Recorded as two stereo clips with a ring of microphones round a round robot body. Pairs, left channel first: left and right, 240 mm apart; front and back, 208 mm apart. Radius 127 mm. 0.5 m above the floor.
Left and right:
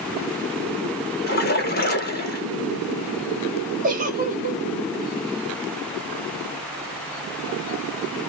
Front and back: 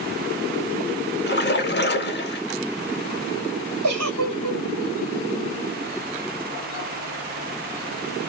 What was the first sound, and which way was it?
A splash, 40° left.